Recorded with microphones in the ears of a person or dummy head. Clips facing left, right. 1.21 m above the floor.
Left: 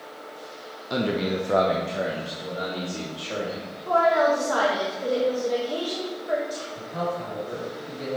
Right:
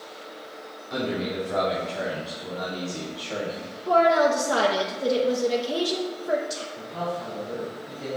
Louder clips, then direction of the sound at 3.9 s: Right 1 dB; 25° right (ahead or behind).